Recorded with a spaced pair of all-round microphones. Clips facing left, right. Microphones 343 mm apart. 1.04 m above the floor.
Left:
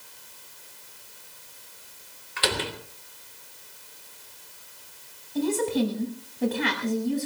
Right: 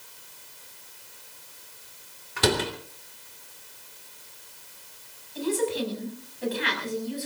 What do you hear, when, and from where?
2.4 s a door slam: 50° right (ahead or behind), 3 m
5.3 s a woman speaking: 55° left (ahead or behind), 6.5 m